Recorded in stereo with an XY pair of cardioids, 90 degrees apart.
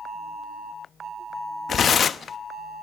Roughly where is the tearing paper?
Ahead left.